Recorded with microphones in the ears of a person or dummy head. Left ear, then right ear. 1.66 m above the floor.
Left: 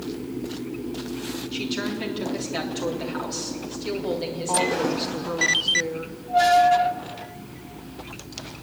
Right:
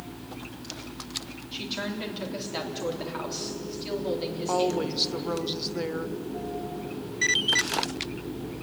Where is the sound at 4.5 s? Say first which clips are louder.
Left 3 dB; 25° right (ahead or behind), 1.1 m.